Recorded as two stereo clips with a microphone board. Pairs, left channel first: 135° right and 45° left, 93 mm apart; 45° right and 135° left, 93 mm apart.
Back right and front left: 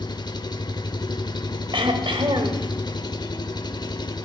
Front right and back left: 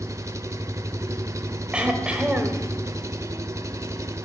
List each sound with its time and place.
0.0 s an engine running: 170° right, 0.8 m
1.7 s throat clearing: 60° left, 1.3 m